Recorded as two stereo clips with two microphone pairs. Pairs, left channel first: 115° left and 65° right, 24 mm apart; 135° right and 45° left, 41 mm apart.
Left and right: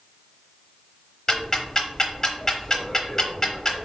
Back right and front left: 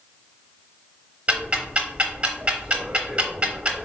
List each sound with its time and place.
1.3 s ticking: 65° left, 0.8 m